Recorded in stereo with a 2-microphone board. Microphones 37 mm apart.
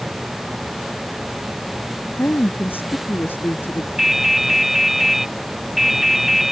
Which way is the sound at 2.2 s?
70° left (ahead or behind).